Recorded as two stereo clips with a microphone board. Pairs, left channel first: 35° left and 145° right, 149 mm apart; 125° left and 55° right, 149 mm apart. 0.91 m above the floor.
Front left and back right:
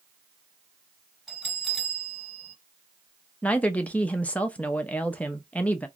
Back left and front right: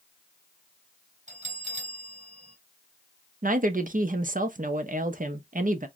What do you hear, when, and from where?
1.3 s a bell: 55° right, 1.1 m
3.4 s a woman speaking: 45° right, 0.5 m